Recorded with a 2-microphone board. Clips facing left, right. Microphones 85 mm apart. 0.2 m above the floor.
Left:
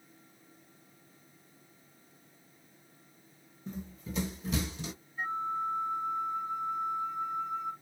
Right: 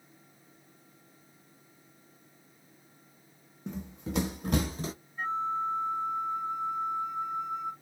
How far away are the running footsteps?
About 0.7 m.